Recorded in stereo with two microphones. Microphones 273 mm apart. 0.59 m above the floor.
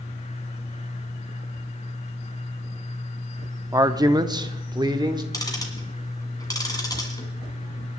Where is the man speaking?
10° right (ahead or behind), 0.7 m; by 5.2 s 15° right (ahead or behind), 1.5 m.